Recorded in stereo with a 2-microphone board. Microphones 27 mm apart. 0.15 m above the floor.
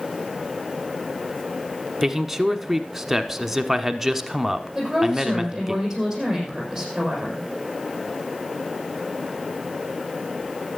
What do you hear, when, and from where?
2.0 s a man speaking: 10° right (ahead or behind), 1.2 m
4.8 s a woman speaking: 5° right (ahead or behind), 7 m